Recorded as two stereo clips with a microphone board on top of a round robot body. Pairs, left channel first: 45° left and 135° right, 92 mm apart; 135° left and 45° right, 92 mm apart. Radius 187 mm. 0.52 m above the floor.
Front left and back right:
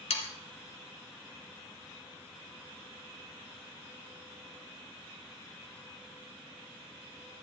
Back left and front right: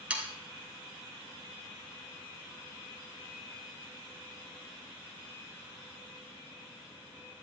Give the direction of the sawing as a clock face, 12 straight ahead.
11 o'clock.